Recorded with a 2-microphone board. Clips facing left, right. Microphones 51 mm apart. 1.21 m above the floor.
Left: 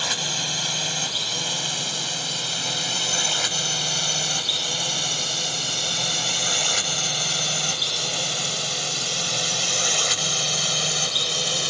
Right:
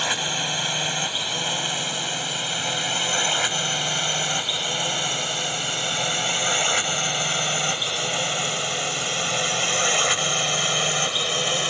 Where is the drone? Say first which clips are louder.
Right 3 dB; 20° right (ahead or behind); by 11.7 s 30° right (ahead or behind).